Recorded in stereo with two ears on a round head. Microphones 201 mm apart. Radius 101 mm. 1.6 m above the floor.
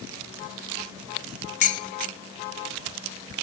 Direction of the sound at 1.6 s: 35° left (ahead or behind).